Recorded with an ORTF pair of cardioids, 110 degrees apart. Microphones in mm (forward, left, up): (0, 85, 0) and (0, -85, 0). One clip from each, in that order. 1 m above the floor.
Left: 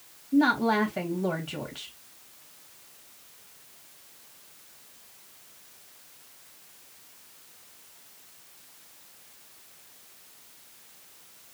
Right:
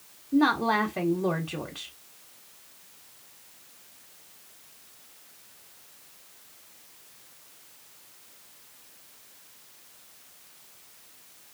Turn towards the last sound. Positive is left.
turn(degrees=-5)